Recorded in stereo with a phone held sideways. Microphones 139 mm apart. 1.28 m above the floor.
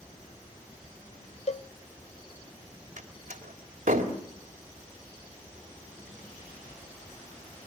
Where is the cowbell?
50° left (ahead or behind), 0.6 m.